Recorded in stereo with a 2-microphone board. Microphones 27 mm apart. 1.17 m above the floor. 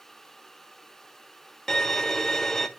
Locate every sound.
1.7 s a violin: 20° left (ahead or behind), 0.7 m